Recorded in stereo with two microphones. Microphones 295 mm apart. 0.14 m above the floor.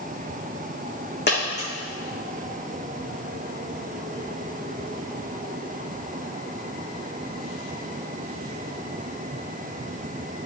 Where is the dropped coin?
35° left (ahead or behind), 3.5 m.